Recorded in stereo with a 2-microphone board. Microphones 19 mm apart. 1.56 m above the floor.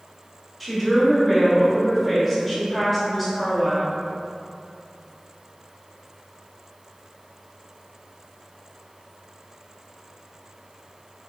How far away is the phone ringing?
I don't hear a phone ringing.